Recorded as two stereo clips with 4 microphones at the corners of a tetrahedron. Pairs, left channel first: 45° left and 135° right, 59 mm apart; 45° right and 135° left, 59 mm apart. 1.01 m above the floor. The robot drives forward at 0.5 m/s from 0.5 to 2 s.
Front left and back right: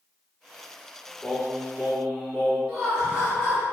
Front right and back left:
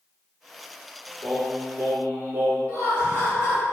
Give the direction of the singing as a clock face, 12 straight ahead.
7 o'clock.